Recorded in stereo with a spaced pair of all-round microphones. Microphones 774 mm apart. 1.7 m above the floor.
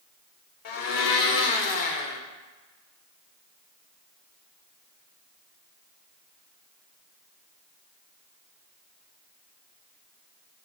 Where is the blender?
80° left, 0.8 m.